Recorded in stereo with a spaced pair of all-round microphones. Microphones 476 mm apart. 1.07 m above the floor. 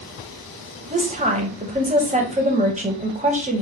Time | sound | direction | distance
0.9 | a woman speaking | 15° right (ahead or behind) | 0.7 m